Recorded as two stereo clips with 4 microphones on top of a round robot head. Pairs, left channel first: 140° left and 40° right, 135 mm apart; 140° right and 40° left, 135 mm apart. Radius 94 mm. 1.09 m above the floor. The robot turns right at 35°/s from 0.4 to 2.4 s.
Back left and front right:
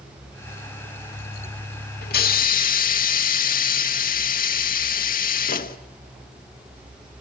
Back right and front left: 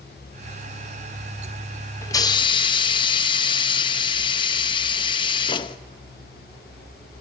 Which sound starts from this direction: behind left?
A hiss, at 2.0 s.